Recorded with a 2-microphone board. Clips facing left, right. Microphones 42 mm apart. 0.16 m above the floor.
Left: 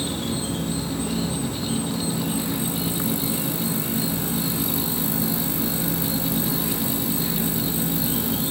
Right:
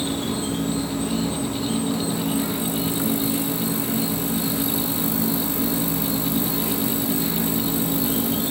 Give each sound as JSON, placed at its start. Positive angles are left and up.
{"t": 0.0, "sound": "an insect", "side_deg": -50, "distance_m": 1.2}